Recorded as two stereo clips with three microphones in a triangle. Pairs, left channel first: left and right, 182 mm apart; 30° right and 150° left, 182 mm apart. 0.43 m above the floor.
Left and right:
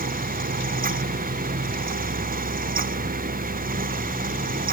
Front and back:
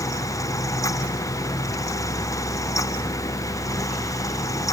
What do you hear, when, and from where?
Only background noise.